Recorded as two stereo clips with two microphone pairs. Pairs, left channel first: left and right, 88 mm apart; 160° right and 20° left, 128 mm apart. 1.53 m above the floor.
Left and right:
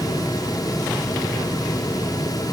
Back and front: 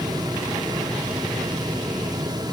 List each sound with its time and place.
Only background noise.